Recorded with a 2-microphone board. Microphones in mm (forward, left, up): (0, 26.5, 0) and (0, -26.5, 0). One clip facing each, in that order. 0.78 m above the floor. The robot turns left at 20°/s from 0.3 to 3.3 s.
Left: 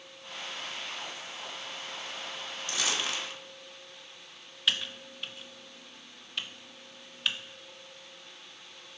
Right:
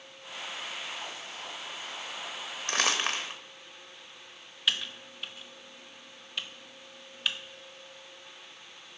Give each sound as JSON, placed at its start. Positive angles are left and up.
{"t": 2.7, "sound": "crumpling", "side_deg": -50, "distance_m": 0.8}
{"t": 4.7, "sound": "typing on a keyboard", "side_deg": 0, "distance_m": 0.6}